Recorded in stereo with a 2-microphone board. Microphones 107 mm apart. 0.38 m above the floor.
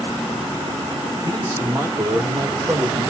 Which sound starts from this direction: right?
A man speaking, at 1.2 s.